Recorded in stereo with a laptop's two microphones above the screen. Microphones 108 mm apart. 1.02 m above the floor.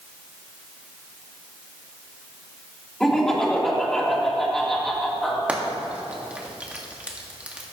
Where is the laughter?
5° left (ahead or behind), 3 m.